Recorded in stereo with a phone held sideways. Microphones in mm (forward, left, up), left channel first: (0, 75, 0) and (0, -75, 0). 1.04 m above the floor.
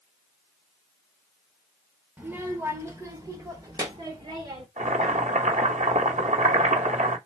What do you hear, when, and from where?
2.2 s a child speaking: 10° right (ahead or behind), 1.0 m; by 4.7 s 30° right (ahead or behind), 2 m
4.8 s boiling: 60° right (ahead or behind), 1.0 m